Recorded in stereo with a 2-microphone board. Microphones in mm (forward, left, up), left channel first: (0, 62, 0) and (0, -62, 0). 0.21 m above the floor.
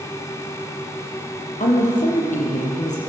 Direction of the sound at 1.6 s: 75° left (ahead or behind).